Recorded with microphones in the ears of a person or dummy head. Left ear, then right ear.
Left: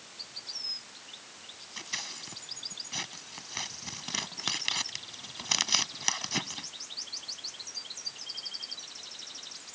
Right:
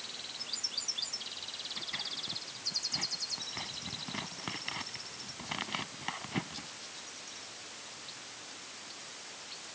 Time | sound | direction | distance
1.8 | scissors | 80° left | ?